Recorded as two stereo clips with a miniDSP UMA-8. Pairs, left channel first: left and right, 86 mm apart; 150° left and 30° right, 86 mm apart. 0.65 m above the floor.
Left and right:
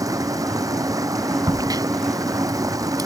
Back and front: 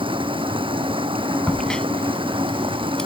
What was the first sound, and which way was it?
Running water, 40° right.